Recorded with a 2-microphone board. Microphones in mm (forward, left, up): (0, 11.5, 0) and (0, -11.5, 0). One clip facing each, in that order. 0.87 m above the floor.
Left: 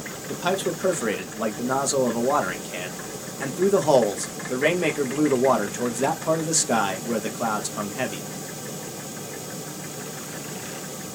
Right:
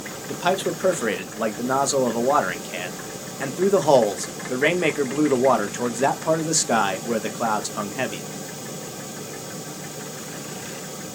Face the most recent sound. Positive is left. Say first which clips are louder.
# right 2 dB
turn(degrees=-10)  # may be behind; listen again after turning